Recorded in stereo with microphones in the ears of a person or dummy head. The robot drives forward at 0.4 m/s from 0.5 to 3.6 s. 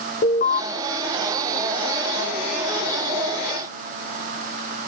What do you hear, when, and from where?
0.2 s an alarm: 40° left (ahead or behind), 1.2 m